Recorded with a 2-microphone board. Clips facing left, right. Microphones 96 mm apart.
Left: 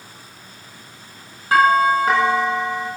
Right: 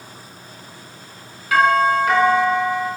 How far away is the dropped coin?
I don't hear a dropped coin.